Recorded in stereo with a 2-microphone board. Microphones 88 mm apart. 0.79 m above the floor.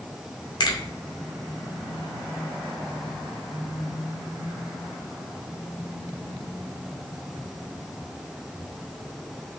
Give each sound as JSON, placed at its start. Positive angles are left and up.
{"t": 0.6, "sound": "a finger snap", "side_deg": 55, "distance_m": 2.0}